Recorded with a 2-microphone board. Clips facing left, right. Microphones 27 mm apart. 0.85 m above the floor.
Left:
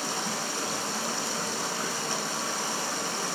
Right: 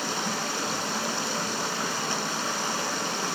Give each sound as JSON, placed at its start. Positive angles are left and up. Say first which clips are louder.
{"t": 0.0, "sound": "running water", "louder": "right 2 dB", "side_deg": -15, "distance_m": 2.0}